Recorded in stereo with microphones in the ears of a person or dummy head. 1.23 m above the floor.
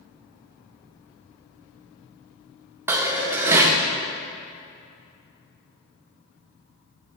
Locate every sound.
2.9 s dishes clattering: 15° right (ahead or behind), 0.7 m